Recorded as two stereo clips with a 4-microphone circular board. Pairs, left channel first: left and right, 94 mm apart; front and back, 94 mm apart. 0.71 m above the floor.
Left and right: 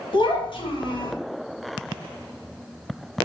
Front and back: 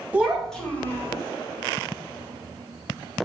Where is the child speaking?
105° left, 0.8 m; by 1.1 s 60° left, 1.0 m.